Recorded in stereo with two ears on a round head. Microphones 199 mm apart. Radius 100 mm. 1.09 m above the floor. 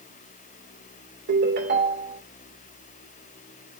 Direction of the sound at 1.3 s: 55° right (ahead or behind).